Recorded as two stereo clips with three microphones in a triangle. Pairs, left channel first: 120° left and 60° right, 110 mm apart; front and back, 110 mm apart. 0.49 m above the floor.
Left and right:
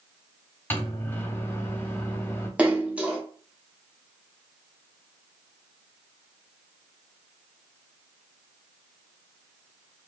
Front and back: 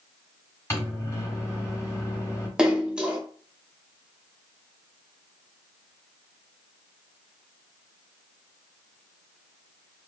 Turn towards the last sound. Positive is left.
turn(degrees=-115)